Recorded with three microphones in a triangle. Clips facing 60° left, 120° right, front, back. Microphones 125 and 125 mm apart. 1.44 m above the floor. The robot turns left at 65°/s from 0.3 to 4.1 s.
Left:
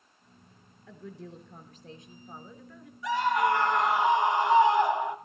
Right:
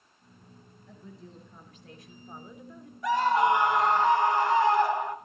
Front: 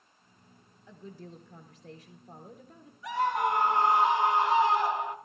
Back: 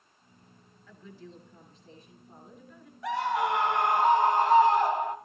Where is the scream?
155° right, 3.5 m; by 5.2 s 135° left, 3.5 m.